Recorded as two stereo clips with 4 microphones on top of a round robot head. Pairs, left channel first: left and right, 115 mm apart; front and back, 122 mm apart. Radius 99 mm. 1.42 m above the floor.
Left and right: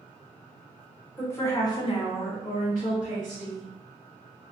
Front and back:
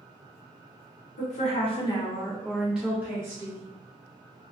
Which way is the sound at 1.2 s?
15° left.